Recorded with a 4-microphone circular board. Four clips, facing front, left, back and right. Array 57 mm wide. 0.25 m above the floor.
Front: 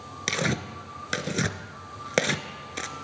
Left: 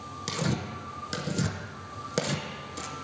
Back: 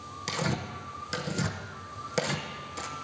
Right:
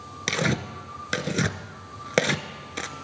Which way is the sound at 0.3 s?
55° right.